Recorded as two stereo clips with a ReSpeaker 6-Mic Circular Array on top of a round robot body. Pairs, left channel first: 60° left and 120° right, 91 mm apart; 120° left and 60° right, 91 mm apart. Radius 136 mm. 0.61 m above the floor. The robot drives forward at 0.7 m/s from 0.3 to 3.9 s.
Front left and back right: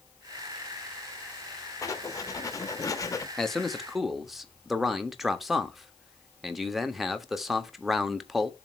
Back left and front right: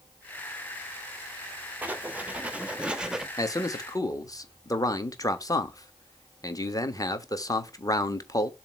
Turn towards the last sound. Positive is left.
turn(degrees=155)